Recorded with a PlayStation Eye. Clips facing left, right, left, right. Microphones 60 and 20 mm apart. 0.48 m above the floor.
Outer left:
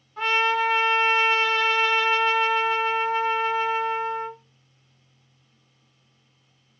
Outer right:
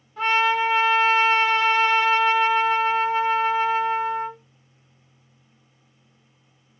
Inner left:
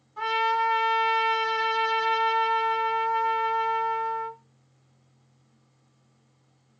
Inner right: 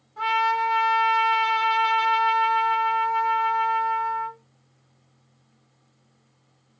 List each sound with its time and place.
0.2 s a trumpet: 5° right (ahead or behind), 1.6 m